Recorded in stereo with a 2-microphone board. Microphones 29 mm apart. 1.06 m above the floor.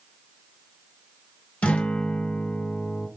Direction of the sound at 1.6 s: 55° left (ahead or behind).